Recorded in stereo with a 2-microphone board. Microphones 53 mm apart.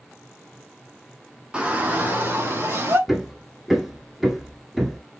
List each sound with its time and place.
1.5 s a shout: 20° right (ahead or behind), 1.7 m; by 3.0 s 45° right (ahead or behind), 3.5 m
3.1 s hammering: 5° right (ahead or behind), 1.1 m